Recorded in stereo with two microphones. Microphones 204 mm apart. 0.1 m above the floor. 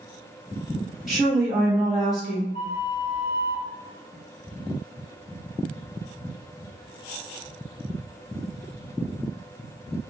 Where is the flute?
55° right (ahead or behind), 0.9 m.